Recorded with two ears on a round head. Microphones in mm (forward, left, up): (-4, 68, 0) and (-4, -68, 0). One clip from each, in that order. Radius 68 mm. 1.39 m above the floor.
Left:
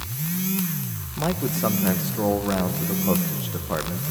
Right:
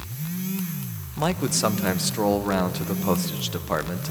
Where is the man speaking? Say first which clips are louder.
Right 2 dB; 75° right (ahead or behind), 1.0 m.